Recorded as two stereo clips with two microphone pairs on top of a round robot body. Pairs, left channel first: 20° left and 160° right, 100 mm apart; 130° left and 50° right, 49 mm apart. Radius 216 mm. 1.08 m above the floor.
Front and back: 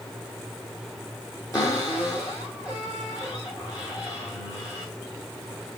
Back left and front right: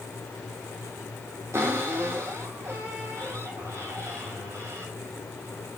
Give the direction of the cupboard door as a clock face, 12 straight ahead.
1 o'clock.